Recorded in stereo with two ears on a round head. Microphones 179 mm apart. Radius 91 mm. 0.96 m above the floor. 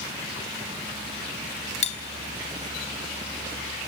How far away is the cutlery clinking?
About 1.3 m.